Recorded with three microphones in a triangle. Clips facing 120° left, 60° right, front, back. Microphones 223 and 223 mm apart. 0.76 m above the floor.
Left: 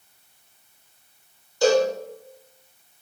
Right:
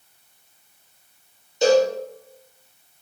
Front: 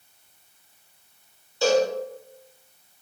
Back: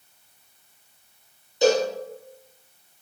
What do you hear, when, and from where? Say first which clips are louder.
1.6 s a cowbell: right 2 dB, back 1 dB; 120° right, 1.4 m